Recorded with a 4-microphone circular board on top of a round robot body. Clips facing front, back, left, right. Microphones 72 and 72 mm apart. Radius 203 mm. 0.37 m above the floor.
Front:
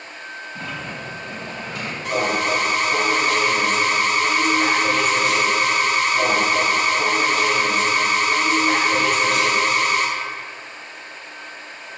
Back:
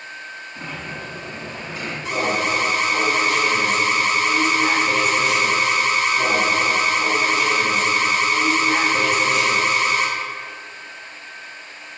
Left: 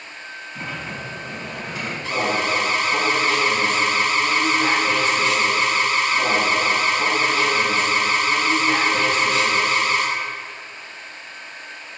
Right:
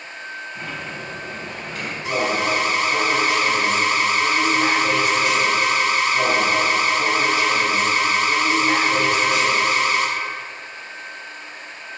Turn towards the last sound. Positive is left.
turn(degrees=-20)